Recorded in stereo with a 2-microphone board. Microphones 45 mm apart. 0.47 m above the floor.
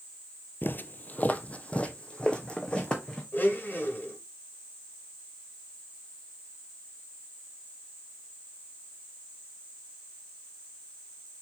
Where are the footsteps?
50° left (ahead or behind), 0.7 m; by 3.2 s 20° left (ahead or behind), 2.5 m.